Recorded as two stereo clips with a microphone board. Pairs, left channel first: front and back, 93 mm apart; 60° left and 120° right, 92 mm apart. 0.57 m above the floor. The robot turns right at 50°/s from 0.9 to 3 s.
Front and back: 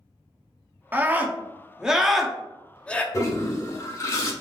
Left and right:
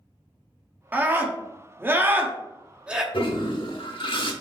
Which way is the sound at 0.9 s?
155° right.